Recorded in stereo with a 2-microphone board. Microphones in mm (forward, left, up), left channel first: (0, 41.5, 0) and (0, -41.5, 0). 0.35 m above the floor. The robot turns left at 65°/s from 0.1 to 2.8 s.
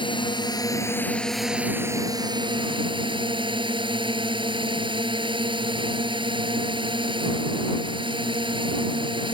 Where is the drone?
85° left; by 9.3 s 90° right.